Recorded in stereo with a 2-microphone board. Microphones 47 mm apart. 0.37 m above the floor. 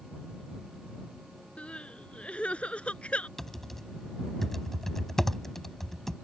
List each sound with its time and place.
1.6 s crying: 25° left (ahead or behind)
3.4 s typing on a keyboard: 5° left (ahead or behind)